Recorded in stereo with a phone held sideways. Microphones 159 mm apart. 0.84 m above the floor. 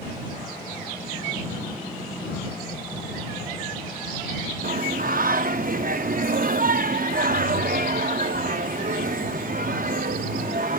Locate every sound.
4.6 s singing: 65° right (ahead or behind)